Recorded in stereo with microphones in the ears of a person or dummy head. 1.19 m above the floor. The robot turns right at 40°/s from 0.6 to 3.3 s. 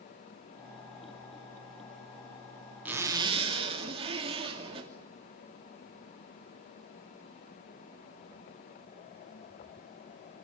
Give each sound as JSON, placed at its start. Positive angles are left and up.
{"t": 2.9, "sound": "a zipper", "side_deg": -5, "distance_m": 2.5}